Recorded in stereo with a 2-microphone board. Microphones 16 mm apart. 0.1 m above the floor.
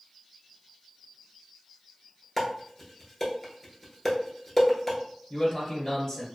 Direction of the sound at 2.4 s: 10° left (ahead or behind).